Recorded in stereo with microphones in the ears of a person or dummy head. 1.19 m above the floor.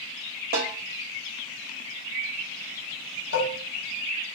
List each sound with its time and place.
0.5 s a snare drum: 45° right (ahead or behind), 1.6 m
3.3 s dishes clattering: 85° left, 1.1 m